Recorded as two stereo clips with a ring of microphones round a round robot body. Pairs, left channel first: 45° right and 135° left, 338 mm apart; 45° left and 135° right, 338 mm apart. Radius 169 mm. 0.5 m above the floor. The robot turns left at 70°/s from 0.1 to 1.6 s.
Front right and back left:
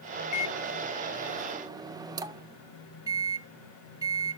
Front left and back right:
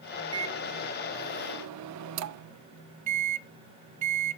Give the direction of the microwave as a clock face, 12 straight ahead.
2 o'clock.